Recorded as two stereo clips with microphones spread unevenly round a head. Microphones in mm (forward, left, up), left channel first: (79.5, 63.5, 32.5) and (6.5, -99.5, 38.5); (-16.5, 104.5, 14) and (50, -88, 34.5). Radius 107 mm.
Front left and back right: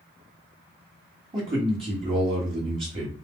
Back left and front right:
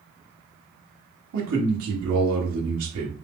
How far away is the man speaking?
About 1.4 m.